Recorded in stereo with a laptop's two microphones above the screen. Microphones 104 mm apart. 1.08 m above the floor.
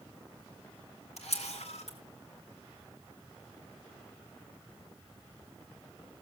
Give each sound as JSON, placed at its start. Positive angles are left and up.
{"t": 1.2, "sound": "a camera shutter", "side_deg": 80, "distance_m": 2.0}